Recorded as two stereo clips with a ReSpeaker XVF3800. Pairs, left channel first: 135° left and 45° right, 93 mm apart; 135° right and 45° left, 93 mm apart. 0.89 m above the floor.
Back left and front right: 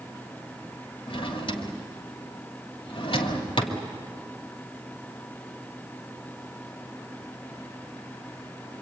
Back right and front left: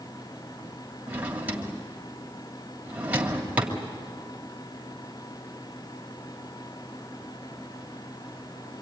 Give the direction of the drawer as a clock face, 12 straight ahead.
8 o'clock.